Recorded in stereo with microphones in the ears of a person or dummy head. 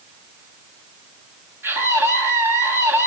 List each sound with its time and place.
1.6 s a scream: 15° right (ahead or behind), 8 m